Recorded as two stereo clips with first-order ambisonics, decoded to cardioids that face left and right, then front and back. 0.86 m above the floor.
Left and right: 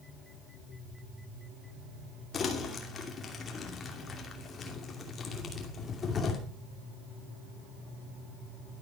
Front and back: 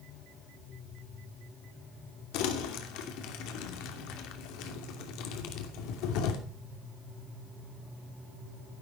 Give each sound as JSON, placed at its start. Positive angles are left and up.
{"t": 2.3, "sound": "crumpling", "azimuth_deg": 25, "distance_m": 2.5}